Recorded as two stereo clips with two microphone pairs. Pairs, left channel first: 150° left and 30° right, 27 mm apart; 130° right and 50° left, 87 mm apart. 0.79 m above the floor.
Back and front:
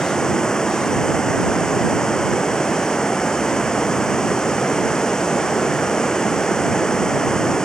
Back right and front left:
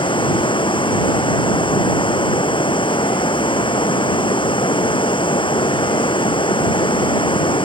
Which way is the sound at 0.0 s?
145° right.